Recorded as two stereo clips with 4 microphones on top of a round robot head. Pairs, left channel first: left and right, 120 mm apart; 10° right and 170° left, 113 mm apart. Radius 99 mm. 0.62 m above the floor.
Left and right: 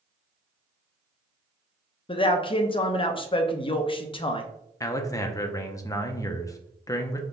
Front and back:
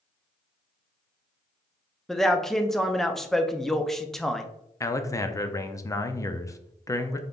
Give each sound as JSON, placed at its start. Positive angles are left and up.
{"t": 2.1, "sound": "a man speaking", "azimuth_deg": 75, "distance_m": 0.7}
{"t": 4.8, "sound": "a man speaking", "azimuth_deg": 40, "distance_m": 0.6}